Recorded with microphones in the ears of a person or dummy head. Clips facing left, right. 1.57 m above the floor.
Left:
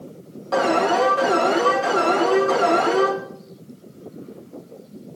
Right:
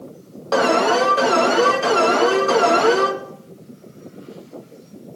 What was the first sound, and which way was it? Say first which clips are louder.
An alarm: right 2 dB; 65° right (ahead or behind).